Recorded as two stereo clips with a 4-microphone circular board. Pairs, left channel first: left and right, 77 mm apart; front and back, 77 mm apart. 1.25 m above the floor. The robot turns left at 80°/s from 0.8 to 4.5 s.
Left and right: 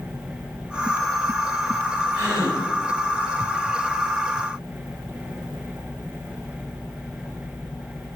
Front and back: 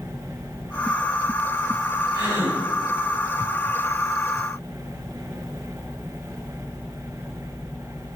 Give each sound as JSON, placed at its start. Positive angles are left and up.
{"t": 2.1, "sound": "a gasp", "azimuth_deg": -150, "distance_m": 2.0}